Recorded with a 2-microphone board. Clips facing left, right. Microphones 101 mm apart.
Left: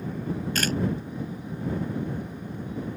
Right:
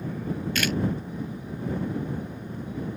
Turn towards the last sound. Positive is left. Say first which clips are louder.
# even
turn(degrees=40)  # may be behind; listen again after turning